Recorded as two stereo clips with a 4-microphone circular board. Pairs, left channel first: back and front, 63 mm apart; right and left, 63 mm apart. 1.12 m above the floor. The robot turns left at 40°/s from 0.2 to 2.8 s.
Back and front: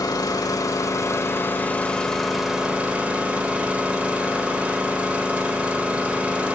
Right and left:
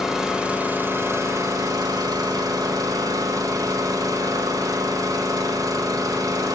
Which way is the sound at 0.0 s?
175° left.